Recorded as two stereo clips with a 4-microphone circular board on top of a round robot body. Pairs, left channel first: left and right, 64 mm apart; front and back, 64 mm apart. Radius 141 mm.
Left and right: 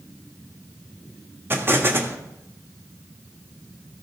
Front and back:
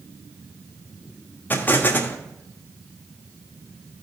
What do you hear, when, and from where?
1.5 s an explosion: 50° right, 1.4 m